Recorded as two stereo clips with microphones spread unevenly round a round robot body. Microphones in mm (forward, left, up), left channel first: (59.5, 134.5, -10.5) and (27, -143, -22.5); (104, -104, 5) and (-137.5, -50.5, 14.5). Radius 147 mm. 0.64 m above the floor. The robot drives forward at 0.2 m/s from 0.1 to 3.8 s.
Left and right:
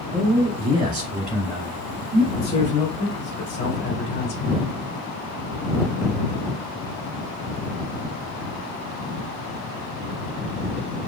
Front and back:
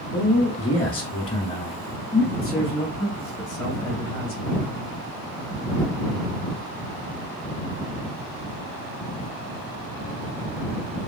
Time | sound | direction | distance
0.1 | a man speaking | 45° right | 1.3 m
2.3 | a man speaking | 45° left | 1.5 m